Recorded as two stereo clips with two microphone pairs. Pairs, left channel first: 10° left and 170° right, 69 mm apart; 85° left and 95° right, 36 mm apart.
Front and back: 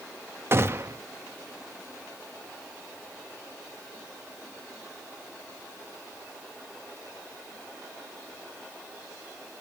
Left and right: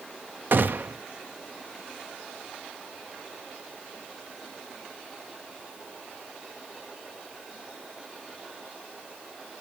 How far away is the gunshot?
About 0.7 m.